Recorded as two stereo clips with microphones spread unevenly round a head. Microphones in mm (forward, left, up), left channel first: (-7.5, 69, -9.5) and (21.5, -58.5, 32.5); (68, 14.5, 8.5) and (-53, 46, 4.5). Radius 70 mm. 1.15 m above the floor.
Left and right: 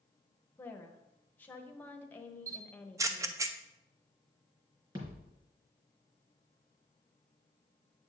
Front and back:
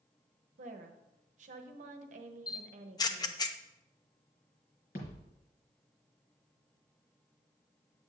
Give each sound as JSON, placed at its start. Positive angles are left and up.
{"t": 0.6, "sound": "a woman speaking", "azimuth_deg": 165, "distance_m": 0.9}
{"t": 2.5, "sound": "a camera shutter", "azimuth_deg": 0, "distance_m": 0.6}
{"t": 5.0, "sound": "a thud", "azimuth_deg": -20, "distance_m": 3.5}